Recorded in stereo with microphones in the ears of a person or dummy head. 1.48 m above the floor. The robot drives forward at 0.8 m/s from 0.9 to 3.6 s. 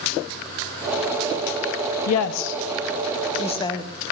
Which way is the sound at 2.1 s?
75° left (ahead or behind).